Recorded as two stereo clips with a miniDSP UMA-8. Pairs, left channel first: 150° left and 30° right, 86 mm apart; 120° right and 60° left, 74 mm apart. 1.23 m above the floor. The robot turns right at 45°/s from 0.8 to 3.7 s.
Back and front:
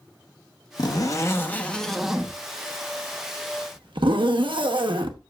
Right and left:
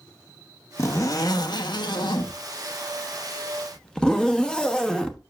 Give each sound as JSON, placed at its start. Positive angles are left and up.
{"t": 0.8, "sound": "a zipper", "azimuth_deg": -175, "distance_m": 0.9}